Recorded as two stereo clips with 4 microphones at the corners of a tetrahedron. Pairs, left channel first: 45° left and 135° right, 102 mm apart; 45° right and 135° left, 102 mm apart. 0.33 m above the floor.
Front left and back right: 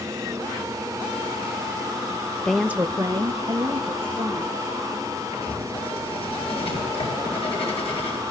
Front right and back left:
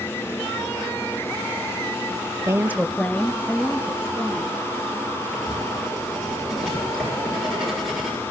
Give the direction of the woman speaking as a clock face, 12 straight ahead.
8 o'clock.